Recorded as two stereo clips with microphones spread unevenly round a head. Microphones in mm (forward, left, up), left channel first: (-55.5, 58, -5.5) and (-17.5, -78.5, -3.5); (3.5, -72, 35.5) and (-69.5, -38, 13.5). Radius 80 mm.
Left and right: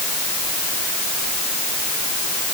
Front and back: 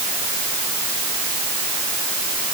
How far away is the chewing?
I don't hear chewing.